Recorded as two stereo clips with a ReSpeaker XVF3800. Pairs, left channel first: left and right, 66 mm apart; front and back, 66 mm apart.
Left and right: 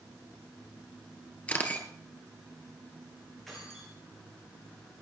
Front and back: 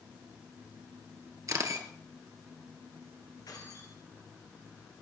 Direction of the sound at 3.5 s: 5° left.